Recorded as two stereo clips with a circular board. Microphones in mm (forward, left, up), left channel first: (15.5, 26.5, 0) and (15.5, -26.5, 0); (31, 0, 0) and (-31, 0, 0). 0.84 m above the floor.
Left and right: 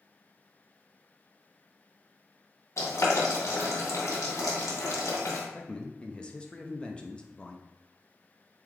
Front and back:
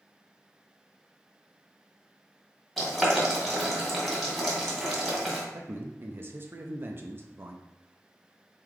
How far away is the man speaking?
About 0.5 m.